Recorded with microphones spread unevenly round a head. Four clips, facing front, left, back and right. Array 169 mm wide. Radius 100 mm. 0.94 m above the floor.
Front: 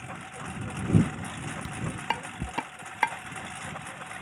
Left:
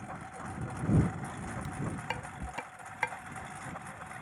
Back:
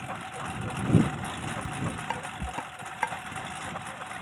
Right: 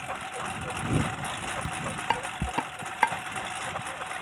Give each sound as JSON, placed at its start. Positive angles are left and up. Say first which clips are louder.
{"t": 0.0, "sound": "a lawn mower", "louder": "right 8 dB, back 4 dB", "azimuth_deg": -85}
{"t": 1.6, "sound": "dishes clattering", "louder": "right 9 dB, front 4 dB", "azimuth_deg": -55}